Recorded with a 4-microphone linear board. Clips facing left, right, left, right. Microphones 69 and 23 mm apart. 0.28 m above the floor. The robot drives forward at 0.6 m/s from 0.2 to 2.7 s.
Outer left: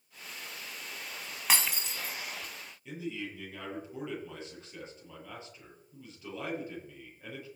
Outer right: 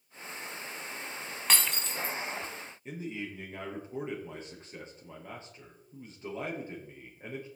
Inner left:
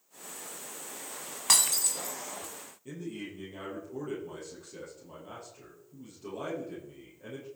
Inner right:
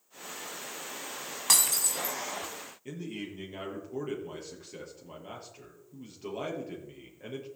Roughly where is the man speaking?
Right.